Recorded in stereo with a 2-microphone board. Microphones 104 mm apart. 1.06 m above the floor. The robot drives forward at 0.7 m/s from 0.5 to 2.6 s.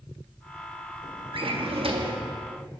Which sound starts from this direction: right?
A drawer, at 1.3 s.